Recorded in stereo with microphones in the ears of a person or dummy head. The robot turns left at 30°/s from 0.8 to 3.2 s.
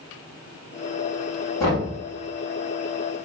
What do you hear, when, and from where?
1.6 s knocking: 20° left (ahead or behind), 1.8 m; by 1.9 s 30° left (ahead or behind), 1.8 m